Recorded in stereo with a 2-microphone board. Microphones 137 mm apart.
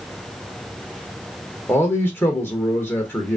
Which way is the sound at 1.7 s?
15° left (ahead or behind).